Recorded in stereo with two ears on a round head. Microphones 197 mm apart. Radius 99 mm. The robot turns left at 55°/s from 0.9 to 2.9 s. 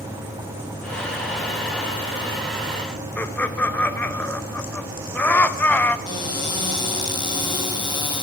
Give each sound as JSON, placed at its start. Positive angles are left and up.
{"t": 3.2, "sound": "laughter", "side_deg": 10, "distance_m": 0.8}
{"t": 6.1, "sound": "a cupboard door", "side_deg": 20, "distance_m": 4.0}